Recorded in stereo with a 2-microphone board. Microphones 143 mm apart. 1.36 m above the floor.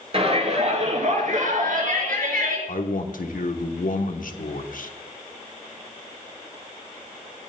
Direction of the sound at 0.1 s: 45° right (ahead or behind).